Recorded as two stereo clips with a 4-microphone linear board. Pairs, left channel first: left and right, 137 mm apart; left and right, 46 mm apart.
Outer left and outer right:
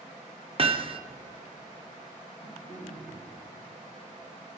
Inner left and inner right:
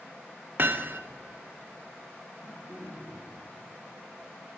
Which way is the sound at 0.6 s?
45° right (ahead or behind).